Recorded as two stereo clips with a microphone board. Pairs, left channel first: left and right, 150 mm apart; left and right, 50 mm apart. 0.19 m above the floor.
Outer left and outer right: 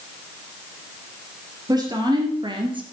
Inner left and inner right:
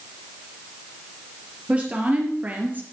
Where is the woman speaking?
25° right (ahead or behind), 3 m; by 2.8 s 35° right (ahead or behind), 2.5 m.